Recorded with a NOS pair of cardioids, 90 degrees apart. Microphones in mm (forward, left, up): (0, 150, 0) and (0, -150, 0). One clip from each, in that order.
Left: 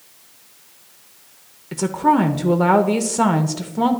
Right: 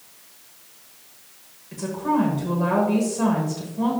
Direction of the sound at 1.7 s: 60° left.